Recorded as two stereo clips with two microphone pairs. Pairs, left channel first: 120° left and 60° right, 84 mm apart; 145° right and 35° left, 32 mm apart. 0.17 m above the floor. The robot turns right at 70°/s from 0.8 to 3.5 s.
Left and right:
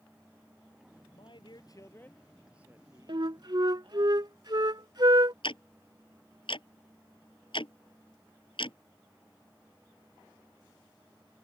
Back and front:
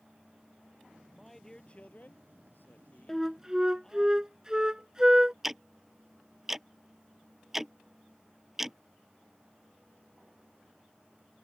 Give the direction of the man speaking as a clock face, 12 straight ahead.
8 o'clock.